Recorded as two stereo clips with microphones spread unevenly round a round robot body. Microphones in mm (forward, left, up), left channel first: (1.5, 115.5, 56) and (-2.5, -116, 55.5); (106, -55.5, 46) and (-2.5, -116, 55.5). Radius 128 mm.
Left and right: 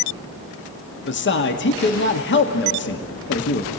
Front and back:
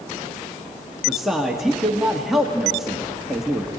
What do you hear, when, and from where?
1.1 s a man speaking: 115° left, 1.4 m